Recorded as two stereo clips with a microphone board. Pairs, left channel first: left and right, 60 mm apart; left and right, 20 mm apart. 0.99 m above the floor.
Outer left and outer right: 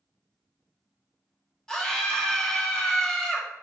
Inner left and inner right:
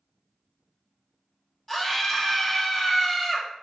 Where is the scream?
10° left (ahead or behind), 1.3 m.